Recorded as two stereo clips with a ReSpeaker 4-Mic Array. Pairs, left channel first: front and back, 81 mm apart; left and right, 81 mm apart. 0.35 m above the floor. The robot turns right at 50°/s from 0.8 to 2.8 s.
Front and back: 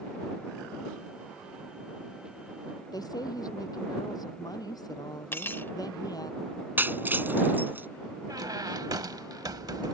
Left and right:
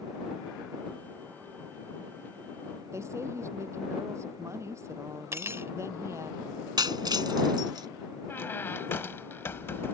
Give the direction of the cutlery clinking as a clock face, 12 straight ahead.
2 o'clock.